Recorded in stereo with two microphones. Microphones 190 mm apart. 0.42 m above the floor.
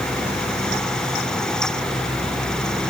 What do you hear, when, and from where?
Only background noise.